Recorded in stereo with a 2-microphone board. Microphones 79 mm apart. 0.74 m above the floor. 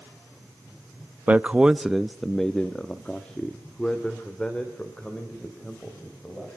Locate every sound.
1.3 s a man speaking: 15° right (ahead or behind), 0.6 m; by 6.5 s 15° left (ahead or behind), 3.5 m